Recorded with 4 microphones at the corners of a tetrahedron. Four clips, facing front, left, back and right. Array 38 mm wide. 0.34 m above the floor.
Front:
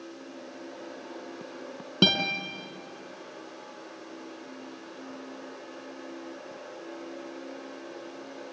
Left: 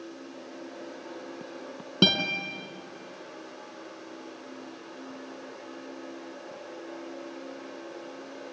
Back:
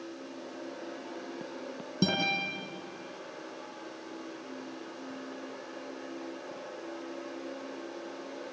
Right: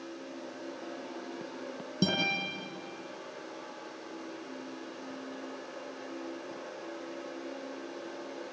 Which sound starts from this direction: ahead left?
A guitar, at 2.0 s.